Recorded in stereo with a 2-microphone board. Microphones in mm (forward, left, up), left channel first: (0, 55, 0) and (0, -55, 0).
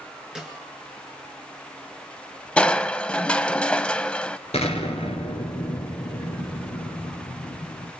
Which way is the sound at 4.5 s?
75° left (ahead or behind).